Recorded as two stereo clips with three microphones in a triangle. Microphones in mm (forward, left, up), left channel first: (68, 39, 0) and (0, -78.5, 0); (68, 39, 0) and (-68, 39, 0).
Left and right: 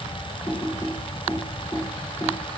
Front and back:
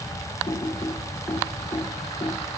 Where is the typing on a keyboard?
10° right, 1.9 m.